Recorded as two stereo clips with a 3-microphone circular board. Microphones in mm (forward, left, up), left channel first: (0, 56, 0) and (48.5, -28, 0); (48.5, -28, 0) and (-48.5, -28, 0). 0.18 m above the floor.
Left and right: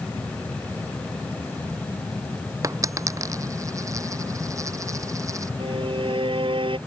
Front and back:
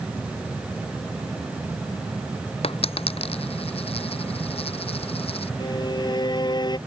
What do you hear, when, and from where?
2.6 s a dropped coin: 5° right
5.6 s a violin: 40° right